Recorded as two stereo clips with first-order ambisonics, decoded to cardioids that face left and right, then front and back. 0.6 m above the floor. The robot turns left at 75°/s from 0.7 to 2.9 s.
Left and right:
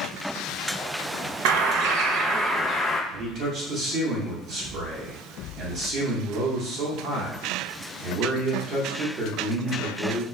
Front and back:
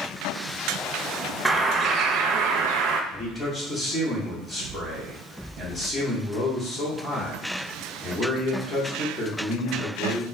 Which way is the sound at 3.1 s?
85° right.